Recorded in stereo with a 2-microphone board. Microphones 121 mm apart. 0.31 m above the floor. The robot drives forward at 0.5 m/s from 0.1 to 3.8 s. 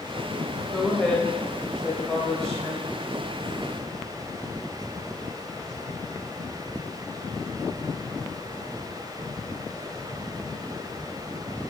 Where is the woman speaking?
5° left (ahead or behind), 0.9 m.